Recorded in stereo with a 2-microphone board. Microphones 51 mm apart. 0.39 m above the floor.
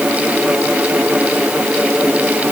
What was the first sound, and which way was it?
Only background noise.